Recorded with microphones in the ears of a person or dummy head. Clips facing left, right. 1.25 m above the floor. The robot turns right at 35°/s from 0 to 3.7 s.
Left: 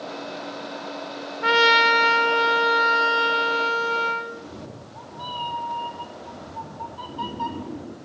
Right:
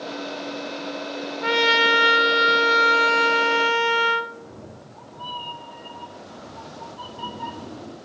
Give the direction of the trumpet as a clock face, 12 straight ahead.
6 o'clock.